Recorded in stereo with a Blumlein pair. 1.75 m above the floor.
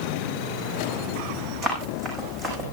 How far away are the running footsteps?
About 6 m.